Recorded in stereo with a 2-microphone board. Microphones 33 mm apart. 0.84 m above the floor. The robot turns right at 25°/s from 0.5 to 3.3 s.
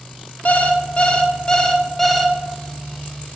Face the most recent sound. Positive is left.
turn(degrees=-155)